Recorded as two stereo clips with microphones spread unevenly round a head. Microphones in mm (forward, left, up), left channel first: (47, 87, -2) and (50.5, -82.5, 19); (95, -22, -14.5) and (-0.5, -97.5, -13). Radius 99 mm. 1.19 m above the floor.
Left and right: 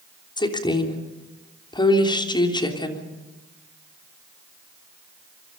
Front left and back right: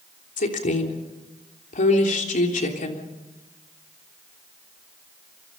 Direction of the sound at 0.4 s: 25° left.